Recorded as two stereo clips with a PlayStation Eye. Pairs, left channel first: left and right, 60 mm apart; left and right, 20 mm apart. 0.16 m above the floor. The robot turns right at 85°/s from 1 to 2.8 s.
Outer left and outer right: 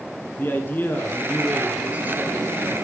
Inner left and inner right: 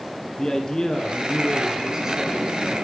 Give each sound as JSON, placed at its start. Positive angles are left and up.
{"t": 0.4, "sound": "a man speaking", "azimuth_deg": 135, "distance_m": 1.5}